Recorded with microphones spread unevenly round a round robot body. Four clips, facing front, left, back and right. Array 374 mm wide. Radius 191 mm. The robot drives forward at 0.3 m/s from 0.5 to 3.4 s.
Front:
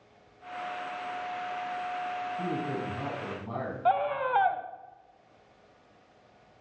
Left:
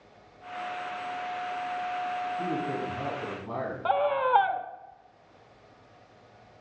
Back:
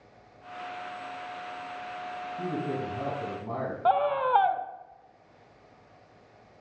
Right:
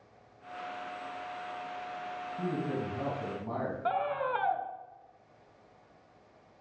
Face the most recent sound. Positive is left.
turn(degrees=145)